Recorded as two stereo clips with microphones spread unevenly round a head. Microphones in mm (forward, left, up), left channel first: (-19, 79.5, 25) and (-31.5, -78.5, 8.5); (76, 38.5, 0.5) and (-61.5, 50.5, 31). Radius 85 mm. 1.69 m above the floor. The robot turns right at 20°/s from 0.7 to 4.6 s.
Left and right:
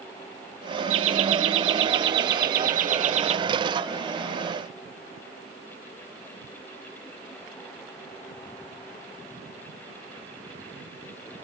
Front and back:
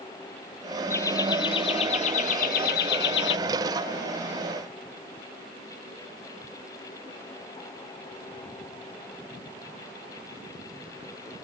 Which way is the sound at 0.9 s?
85° right.